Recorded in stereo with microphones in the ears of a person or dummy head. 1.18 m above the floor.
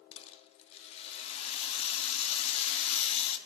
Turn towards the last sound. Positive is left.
turn(degrees=35)  # may be behind; listen again after turning